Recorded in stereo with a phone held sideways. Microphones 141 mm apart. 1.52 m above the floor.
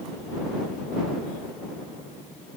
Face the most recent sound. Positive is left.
No sound to turn to.